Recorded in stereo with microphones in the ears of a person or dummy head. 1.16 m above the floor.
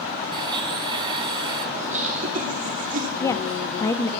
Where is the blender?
20° right (ahead or behind), 2.5 m.